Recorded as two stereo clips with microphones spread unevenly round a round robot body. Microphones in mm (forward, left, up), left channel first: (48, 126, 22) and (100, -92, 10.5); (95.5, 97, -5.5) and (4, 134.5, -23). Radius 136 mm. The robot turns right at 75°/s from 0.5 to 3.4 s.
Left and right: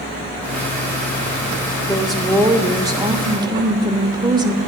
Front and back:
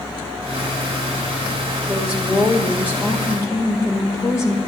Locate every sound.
1.9 s a woman speaking: straight behind, 0.8 m; by 4.6 s 65° right, 0.8 m